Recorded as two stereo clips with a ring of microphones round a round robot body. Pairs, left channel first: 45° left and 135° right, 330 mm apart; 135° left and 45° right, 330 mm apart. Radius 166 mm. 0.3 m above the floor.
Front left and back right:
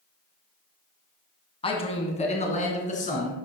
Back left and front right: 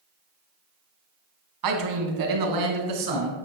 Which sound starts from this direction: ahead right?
A man speaking, at 1.6 s.